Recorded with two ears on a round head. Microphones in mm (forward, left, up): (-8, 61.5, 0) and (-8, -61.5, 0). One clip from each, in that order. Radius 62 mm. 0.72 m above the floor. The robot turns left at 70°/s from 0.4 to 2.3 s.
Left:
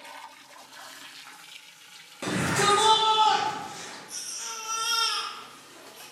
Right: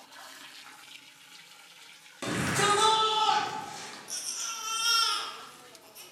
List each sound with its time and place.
2.2 s a shout: 10° right (ahead or behind), 1.0 m; by 4.0 s 15° right (ahead or behind), 1.0 m
4.1 s a baby crying: 50° right (ahead or behind), 0.7 m